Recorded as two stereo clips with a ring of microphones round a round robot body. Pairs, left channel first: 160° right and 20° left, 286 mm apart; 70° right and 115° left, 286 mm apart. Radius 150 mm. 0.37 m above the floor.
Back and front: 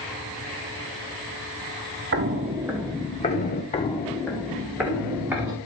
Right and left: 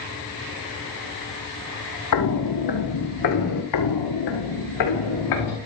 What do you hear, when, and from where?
2.1 s footsteps: 30° right, 1.0 m; by 3.6 s 100° right, 1.4 m
3.7 s footsteps: 90° right, 0.7 m; by 5.6 s 60° right, 2.5 m